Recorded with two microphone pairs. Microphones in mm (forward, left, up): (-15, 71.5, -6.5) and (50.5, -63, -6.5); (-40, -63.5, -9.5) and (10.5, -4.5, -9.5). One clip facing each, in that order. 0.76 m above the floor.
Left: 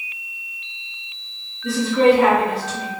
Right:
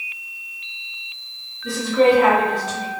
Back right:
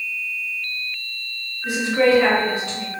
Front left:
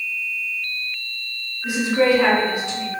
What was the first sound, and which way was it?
A woman speaking, 125° left.